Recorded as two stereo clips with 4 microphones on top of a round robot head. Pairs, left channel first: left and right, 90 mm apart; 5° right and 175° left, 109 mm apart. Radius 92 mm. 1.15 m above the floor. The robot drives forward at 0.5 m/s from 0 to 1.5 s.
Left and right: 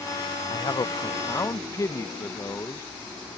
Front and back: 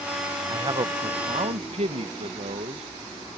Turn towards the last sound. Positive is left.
turn(degrees=150)